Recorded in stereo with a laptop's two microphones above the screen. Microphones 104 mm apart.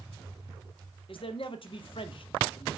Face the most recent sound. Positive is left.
turn(degrees=60)  # may be behind; listen again after turning